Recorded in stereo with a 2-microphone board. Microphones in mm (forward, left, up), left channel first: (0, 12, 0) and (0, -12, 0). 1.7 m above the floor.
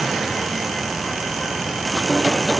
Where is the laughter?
I don't hear laughter.